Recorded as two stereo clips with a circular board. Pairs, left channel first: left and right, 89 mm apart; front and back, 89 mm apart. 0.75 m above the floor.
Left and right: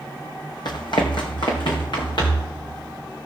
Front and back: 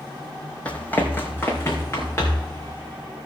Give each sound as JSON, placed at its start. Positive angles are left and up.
{"t": 0.7, "sound": "running footsteps", "azimuth_deg": 75, "distance_m": 1.4}